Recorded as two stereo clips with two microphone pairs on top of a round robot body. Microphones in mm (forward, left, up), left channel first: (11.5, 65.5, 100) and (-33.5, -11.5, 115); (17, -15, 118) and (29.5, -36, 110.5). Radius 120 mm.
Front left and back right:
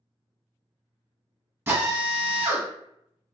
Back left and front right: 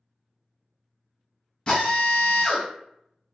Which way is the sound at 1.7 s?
Straight behind.